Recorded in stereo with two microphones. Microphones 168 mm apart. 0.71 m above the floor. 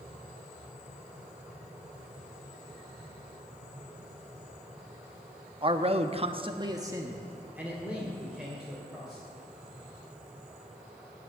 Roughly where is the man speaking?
Right.